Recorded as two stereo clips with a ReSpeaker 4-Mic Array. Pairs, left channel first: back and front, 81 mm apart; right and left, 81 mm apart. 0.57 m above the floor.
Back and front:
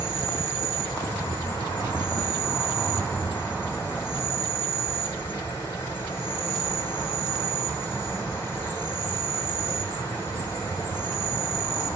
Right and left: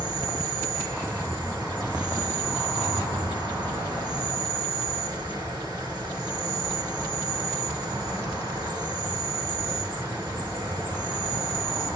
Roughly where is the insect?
Behind left.